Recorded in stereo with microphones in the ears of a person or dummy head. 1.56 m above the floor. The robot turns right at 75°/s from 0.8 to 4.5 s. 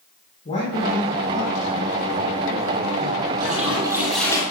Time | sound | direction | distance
0.5 | a man speaking | 145° left | 5.5 m
3.4 | a toilet flushing | 55° right | 8 m